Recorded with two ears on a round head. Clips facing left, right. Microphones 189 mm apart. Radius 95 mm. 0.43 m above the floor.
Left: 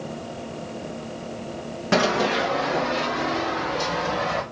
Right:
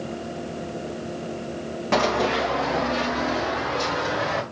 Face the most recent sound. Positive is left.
turn(degrees=-15)  # may be behind; listen again after turning